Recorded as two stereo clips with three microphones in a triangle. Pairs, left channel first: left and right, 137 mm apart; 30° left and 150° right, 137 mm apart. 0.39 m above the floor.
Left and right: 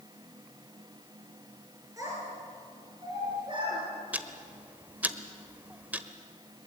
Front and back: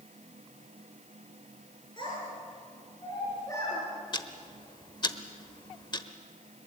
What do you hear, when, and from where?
2.0 s a child speaking: 25° right, 5 m; by 3.8 s 40° right, 4.5 m
4.1 s ticking: 15° right, 1.0 m